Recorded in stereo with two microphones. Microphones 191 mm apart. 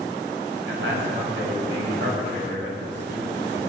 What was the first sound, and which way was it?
A man speaking, 80° right.